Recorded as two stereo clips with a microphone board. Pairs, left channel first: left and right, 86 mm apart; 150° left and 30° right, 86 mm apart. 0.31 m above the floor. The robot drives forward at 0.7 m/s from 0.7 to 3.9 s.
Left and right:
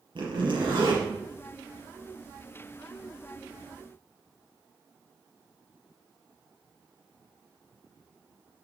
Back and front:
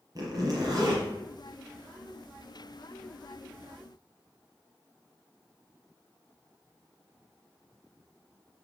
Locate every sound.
0.1 s a zipper: 75° right, 4.5 m